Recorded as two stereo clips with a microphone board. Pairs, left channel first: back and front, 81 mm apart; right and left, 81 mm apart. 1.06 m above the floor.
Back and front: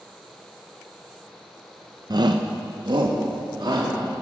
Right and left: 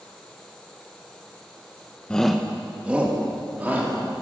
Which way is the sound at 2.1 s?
15° right.